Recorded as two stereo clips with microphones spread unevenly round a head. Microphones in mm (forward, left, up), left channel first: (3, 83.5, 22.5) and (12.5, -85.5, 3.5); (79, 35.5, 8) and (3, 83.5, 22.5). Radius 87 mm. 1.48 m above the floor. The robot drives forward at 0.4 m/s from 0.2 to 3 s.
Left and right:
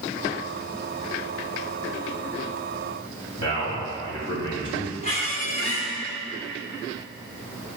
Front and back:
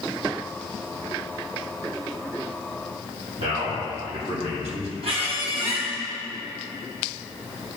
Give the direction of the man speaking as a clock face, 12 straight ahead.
7 o'clock.